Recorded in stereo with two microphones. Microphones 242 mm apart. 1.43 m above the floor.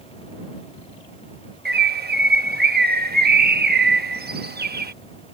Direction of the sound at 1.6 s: 40° right (ahead or behind).